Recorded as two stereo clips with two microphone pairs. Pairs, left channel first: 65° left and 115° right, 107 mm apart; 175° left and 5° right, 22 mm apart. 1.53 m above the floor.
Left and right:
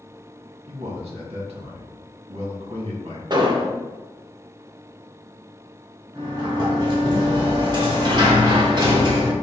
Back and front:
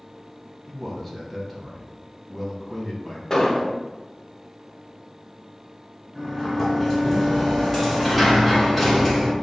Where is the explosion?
125° right, 0.7 m.